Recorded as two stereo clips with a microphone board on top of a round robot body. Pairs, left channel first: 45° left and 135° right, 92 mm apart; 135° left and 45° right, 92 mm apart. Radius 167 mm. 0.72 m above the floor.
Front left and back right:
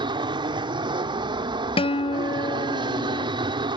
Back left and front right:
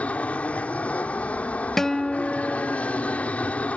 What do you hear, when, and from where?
0.0 s an aircraft: 150° right
1.8 s a guitar: 50° left